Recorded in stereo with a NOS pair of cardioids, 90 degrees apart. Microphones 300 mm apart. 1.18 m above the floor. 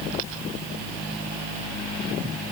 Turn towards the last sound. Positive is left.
No sound to turn to.